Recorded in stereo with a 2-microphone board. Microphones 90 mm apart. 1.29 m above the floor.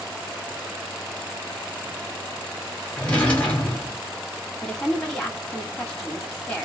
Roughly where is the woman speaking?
Centre.